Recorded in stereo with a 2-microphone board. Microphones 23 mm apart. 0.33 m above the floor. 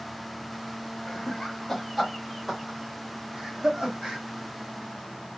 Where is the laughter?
25° left (ahead or behind), 0.9 m; by 4.2 s 45° right (ahead or behind), 1.5 m.